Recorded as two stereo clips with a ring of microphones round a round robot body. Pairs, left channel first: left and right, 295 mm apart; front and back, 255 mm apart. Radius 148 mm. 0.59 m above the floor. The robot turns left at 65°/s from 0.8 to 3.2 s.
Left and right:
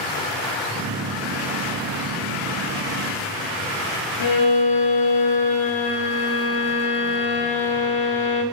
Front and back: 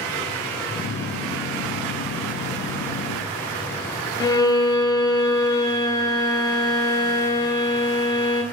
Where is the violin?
75° left, 1.1 m.